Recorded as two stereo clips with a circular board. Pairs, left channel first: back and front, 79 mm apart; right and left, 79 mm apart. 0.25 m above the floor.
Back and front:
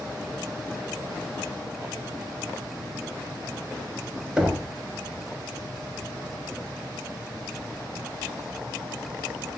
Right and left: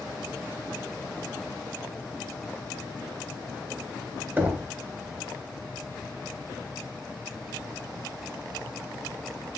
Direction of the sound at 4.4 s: 70° left.